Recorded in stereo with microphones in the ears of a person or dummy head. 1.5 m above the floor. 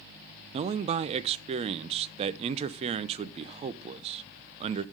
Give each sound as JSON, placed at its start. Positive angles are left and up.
{"t": 0.5, "sound": "a man speaking", "side_deg": -30, "distance_m": 0.6}